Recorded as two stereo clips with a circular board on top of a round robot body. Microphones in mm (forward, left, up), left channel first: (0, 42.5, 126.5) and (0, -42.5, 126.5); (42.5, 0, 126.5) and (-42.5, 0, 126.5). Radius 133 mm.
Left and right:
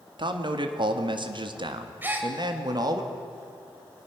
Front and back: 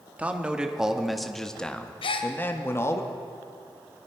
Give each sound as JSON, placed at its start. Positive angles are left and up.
{"t": 0.2, "sound": "a man speaking", "azimuth_deg": -110, "distance_m": 1.9}
{"t": 2.0, "sound": "a gasp", "azimuth_deg": -20, "distance_m": 1.2}